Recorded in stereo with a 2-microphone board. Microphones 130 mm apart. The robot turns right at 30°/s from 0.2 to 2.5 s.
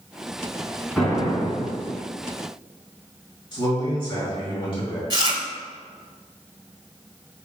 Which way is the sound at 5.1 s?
35° right (ahead or behind).